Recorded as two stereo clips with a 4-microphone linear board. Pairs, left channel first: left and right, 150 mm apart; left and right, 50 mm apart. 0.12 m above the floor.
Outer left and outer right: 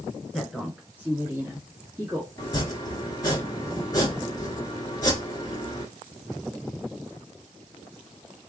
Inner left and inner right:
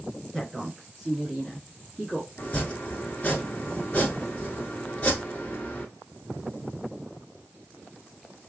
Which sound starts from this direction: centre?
A woman speaking, at 0.3 s.